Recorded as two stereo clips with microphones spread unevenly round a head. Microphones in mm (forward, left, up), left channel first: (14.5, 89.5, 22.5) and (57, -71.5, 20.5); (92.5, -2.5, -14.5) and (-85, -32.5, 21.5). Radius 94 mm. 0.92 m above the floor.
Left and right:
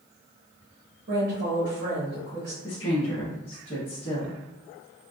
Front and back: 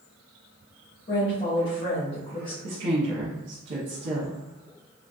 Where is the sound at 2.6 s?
160° left, 0.8 m.